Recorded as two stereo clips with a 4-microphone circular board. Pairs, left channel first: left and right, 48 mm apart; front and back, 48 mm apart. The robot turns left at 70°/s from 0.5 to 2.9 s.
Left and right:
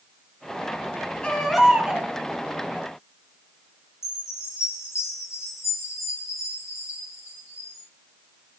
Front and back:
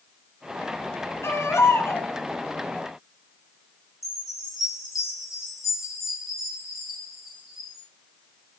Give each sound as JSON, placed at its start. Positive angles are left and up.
{"t": 1.2, "sound": "a baby crying", "azimuth_deg": 25, "distance_m": 2.5}
{"t": 4.0, "sound": "a chime", "azimuth_deg": 100, "distance_m": 8.0}